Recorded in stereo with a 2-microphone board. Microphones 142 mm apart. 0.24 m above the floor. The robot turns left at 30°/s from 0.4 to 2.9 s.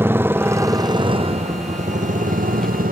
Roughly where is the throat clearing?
I don't hear throat clearing.